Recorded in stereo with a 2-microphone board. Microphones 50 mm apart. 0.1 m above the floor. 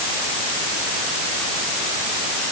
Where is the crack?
I don't hear a crack.